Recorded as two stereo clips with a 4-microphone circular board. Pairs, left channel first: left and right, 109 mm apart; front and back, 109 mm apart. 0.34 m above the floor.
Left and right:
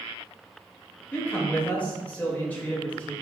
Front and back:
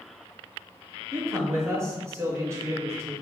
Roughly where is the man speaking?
Behind left.